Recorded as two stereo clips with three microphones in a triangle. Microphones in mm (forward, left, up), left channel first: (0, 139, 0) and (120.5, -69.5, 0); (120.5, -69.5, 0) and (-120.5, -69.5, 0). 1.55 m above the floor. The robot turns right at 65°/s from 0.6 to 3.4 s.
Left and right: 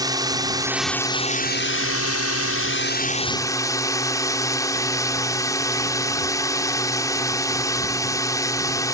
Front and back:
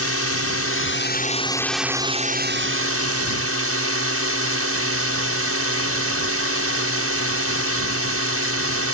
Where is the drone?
15° left; by 8.9 s 165° right.